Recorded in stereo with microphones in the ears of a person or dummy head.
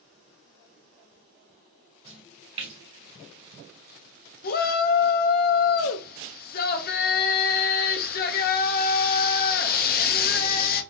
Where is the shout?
45° left (ahead or behind), 0.7 m.